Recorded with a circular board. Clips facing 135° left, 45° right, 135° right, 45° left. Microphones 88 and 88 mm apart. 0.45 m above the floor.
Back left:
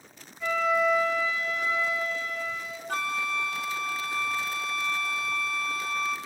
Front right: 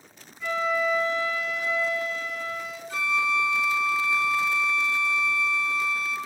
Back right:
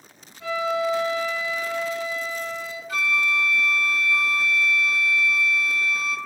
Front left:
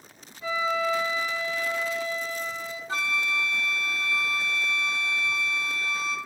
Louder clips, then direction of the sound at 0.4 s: Back left 1 dB, back right 2 dB; 135° right.